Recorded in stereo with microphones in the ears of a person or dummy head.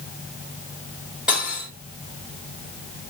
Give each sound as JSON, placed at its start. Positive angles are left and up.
{"t": 1.3, "sound": "cutlery clinking", "side_deg": -5, "distance_m": 1.5}